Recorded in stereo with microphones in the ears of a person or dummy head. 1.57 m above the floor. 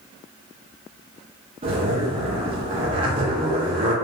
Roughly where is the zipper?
Right.